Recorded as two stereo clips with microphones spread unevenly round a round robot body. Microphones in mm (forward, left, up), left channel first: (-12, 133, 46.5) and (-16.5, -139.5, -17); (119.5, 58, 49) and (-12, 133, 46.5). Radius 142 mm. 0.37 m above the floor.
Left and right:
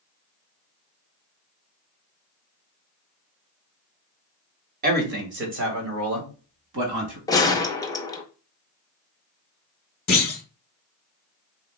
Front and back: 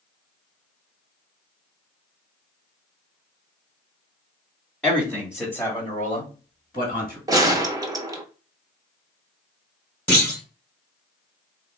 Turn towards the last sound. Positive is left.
turn(degrees=45)